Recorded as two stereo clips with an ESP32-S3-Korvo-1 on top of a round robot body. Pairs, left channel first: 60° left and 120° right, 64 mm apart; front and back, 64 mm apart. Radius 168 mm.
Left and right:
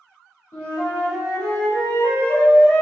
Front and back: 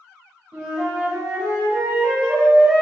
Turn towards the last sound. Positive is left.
turn(degrees=105)